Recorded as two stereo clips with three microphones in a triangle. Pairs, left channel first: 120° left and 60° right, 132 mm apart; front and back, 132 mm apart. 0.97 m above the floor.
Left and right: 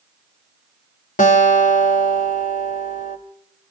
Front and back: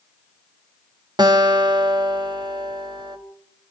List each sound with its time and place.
1.2 s a guitar: 125° left, 1.9 m